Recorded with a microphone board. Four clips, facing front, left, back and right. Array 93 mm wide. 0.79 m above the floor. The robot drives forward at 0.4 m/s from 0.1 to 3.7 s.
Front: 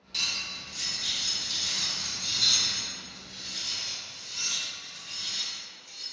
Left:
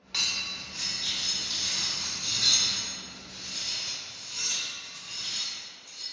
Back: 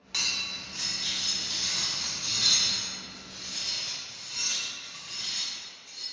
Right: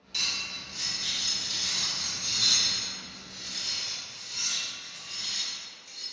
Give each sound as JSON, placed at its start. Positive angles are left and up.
{"t": 0.1, "sound": "cutlery clinking", "azimuth_deg": 130, "distance_m": 0.5}